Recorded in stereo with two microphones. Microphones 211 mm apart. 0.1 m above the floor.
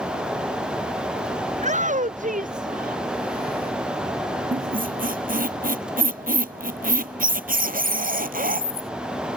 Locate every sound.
1.5 s a shout: 35° right (ahead or behind); by 3.7 s 45° right (ahead or behind)
4.5 s a squeak: 40° right (ahead or behind)